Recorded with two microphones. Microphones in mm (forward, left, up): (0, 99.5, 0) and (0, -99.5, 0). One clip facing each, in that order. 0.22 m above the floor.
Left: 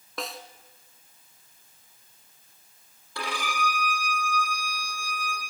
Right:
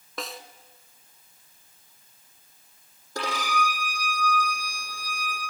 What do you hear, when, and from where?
0.2 s a snare drum: centre (ahead or behind), 1.5 m
3.1 s a violin: 40° right (ahead or behind), 8 m